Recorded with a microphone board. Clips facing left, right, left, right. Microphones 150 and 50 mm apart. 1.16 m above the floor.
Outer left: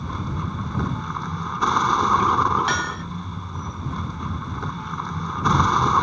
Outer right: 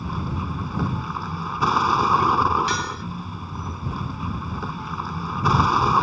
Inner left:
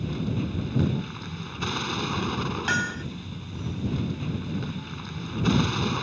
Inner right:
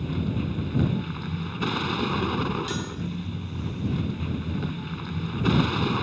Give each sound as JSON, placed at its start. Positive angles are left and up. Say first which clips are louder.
{"t": 0.0, "sound": "a vehicle", "louder": "even, inner right 1 dB", "side_deg": -5}
{"t": 2.7, "sound": "hammering", "louder": "outer left 1 dB, inner left 6 dB", "side_deg": 60}